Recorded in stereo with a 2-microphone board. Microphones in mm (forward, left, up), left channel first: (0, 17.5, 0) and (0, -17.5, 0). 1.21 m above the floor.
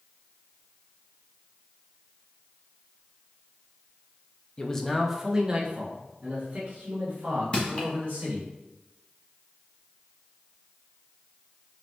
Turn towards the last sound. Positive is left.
turn(degrees=30)  # may be behind; listen again after turning